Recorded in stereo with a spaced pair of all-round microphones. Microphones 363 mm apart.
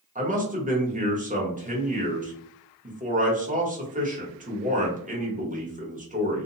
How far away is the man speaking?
About 1.0 m.